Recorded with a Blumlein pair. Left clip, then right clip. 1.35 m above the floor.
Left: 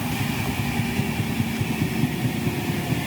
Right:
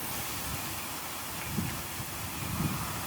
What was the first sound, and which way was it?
Only background noise.